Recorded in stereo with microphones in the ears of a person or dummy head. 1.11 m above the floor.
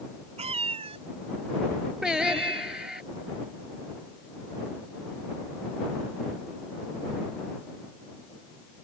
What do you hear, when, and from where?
0.4 s a cat meowing: 35° right (ahead or behind); by 3.0 s 25° right (ahead or behind)
2.0 s singing: centre (ahead or behind)